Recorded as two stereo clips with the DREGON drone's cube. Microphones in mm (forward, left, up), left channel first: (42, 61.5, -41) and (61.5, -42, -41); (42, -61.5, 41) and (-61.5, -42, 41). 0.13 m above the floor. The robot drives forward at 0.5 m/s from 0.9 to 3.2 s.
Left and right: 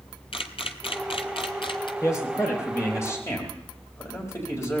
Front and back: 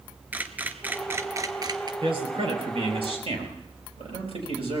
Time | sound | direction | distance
0.3 | a camera shutter | 100° left | 0.8 m
2.0 | a man speaking | 160° left | 4 m